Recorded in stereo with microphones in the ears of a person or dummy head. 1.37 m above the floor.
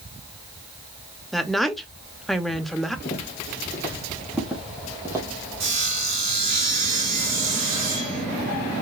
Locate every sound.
1.3 s a woman speaking: centre (ahead or behind), 0.9 m
3.0 s footsteps: 25° left (ahead or behind), 2.5 m; by 5.3 s 15° right (ahead or behind), 2.5 m
5.6 s sawing: 50° right (ahead or behind), 3.5 m